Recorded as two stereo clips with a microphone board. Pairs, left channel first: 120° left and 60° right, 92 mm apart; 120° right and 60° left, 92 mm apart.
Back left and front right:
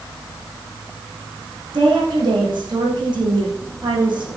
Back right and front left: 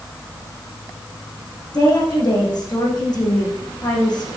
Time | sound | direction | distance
1.7 | a woman speaking | 85° right | 6.5 m